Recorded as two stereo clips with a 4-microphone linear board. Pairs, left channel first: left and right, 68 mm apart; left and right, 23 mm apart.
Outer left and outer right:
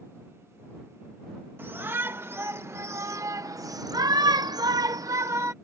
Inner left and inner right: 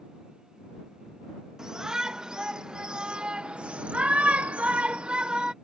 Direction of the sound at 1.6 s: 35° right (ahead or behind).